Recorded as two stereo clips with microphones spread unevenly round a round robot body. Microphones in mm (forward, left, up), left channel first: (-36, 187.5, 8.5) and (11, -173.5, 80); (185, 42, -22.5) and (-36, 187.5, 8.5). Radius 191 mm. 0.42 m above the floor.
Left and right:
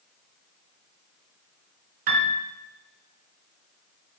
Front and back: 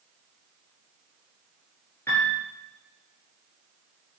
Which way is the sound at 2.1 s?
120° right.